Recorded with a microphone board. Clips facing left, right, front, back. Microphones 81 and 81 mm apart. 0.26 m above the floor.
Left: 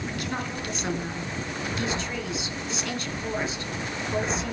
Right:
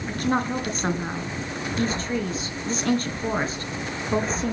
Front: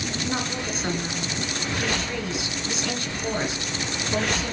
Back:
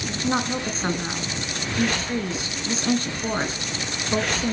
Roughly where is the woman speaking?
Behind right.